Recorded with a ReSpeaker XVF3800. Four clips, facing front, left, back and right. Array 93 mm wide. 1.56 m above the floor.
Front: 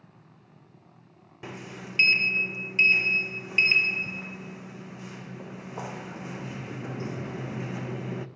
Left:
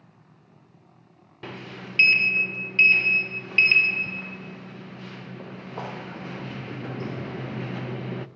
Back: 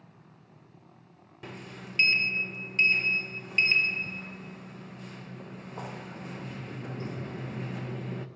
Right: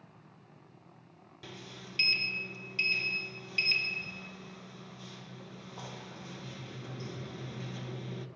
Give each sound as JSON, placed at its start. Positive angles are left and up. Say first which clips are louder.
{"t": 1.4, "sound": "a sliding door", "louder": "left 10 dB, front 3 dB", "azimuth_deg": 70, "distance_m": 0.8}